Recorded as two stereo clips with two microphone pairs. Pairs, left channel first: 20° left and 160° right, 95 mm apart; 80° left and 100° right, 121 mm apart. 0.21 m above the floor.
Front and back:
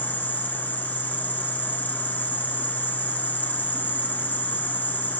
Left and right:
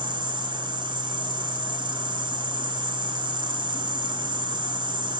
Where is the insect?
50° right, 1.3 m.